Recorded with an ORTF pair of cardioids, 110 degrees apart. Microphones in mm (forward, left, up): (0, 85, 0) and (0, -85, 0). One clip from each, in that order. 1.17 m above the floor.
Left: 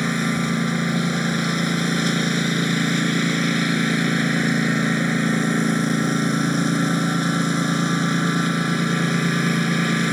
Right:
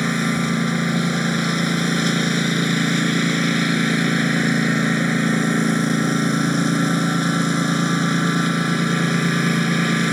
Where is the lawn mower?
5° right.